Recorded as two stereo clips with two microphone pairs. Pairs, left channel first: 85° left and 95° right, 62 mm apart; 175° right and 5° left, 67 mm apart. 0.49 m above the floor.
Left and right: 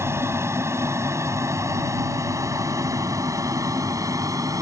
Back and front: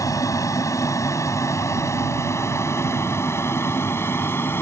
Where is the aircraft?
140° right; by 4.6 s 120° right.